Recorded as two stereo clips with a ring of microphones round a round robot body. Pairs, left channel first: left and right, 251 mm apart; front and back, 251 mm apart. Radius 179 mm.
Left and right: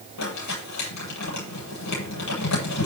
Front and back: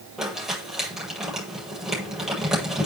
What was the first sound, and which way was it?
Crumpling, 90° left.